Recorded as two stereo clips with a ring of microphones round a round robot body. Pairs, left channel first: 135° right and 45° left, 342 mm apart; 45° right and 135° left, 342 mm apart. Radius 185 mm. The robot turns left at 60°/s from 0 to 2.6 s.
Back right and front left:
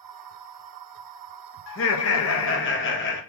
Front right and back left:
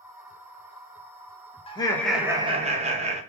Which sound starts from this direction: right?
Laughter, at 1.7 s.